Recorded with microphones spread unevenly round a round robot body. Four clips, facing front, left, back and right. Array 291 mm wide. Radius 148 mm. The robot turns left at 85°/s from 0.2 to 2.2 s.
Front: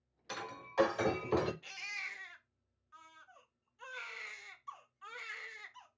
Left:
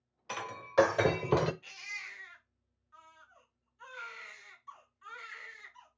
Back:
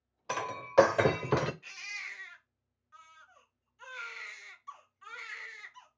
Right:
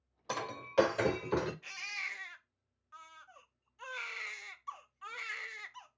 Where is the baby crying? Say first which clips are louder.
Right 2 dB, back 1 dB; 30° right, 1.2 m; by 5.9 s 80° right, 1.2 m.